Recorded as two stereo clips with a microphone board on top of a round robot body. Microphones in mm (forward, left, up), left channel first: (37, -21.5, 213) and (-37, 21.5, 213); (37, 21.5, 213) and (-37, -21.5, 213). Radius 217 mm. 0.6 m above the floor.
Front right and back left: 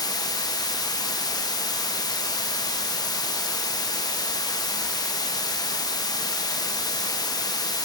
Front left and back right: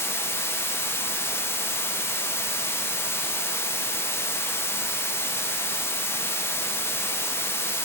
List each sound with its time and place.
0.0 s running water: 20° right, 1.2 m